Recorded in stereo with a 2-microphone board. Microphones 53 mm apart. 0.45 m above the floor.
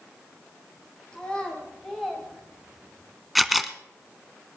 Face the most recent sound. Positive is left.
turn(degrees=0)  # may be behind; listen again after turning